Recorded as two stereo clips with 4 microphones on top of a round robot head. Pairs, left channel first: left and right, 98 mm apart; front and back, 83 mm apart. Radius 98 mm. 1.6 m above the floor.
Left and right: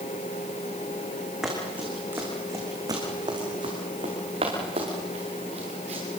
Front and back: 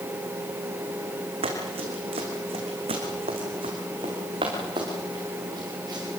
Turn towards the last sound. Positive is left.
turn(degrees=-120)